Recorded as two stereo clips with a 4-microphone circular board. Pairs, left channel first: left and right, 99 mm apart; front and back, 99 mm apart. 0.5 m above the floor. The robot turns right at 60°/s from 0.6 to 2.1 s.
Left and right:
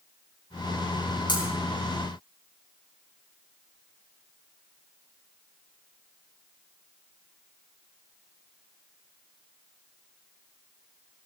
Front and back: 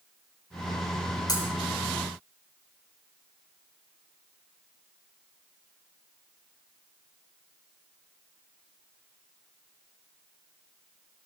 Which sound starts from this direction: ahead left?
Breaking glass, at 1.3 s.